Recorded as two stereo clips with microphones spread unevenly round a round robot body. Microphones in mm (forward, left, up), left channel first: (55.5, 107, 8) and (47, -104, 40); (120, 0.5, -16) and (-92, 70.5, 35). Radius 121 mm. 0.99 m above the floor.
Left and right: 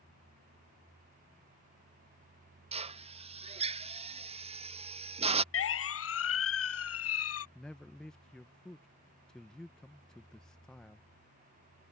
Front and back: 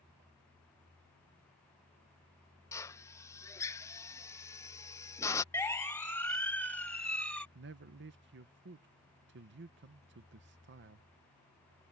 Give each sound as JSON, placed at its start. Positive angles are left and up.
{"t": 2.7, "sound": "a drill", "azimuth_deg": -45}
{"t": 5.5, "sound": "a siren", "azimuth_deg": 60}
{"t": 7.5, "sound": "a man speaking", "azimuth_deg": 160}